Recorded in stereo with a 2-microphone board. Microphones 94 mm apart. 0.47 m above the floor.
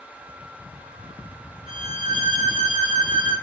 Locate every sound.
1.7 s a violin: 70° right (ahead or behind), 1.4 m